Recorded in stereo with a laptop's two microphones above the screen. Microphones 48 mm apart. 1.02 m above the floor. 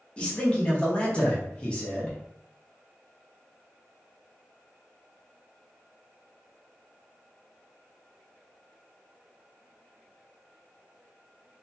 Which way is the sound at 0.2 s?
20° left (ahead or behind).